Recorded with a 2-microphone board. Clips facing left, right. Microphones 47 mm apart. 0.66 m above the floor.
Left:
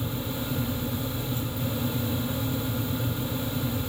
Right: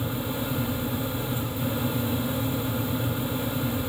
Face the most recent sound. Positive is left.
No sound to turn to.